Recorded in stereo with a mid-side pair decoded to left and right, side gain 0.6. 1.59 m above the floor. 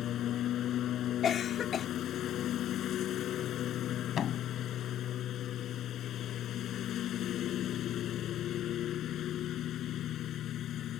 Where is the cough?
45° left.